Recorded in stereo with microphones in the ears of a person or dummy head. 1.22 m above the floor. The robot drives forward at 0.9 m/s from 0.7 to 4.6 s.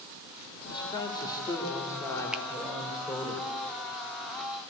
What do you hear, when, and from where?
0.7 s a man speaking: 30° left (ahead or behind), 2 m; by 3.3 s 15° left (ahead or behind), 4.5 m
2.3 s a finger snap: 5° right (ahead or behind), 0.8 m